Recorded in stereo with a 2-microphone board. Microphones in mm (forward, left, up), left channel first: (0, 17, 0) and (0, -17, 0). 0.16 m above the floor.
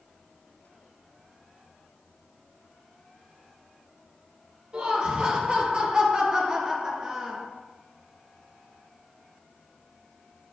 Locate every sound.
4.7 s laughter: 25° right (ahead or behind), 3 m; by 7.5 s 20° right (ahead or behind), 1.7 m